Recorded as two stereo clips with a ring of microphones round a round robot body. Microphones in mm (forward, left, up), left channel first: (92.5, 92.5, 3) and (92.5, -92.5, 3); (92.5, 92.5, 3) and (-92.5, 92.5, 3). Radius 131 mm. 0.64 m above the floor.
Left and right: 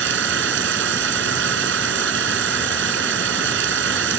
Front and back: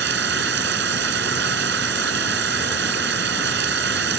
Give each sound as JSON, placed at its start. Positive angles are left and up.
{"t": 0.0, "sound": "running water", "azimuth_deg": -130}